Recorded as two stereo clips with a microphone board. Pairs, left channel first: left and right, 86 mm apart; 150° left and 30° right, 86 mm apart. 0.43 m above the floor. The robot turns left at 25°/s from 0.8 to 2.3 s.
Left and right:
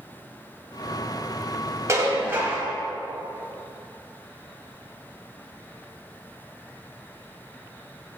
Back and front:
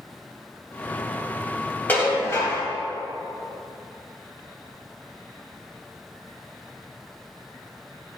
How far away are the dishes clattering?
About 1.5 m.